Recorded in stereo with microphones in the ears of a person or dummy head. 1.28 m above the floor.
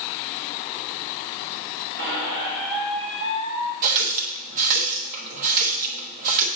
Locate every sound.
2.0 s a squeak: 55° right (ahead or behind), 1.6 m
3.8 s a running tap: 45° right (ahead or behind), 0.9 m